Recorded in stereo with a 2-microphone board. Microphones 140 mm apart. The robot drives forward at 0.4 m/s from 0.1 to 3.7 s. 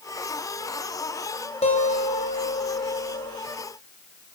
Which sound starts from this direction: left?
A guitar, at 1.6 s.